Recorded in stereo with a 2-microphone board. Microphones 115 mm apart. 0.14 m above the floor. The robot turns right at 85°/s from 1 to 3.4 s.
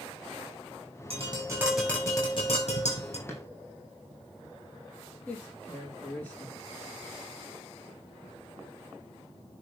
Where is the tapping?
60° right, 5.5 m; by 3.2 s 120° left, 5.5 m.